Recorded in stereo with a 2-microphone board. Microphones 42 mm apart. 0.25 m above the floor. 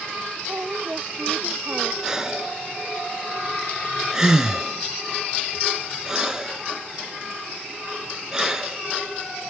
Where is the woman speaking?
35° right (ahead or behind).